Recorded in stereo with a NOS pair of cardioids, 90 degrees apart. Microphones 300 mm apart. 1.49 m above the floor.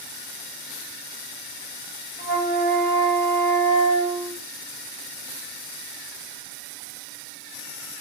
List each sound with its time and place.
2.2 s a flute: 25° left, 1.0 m